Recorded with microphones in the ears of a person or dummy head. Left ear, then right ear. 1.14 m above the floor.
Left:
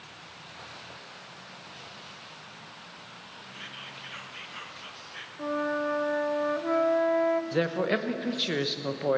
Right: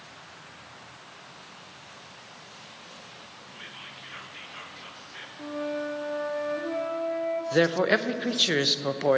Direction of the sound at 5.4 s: 50° left (ahead or behind).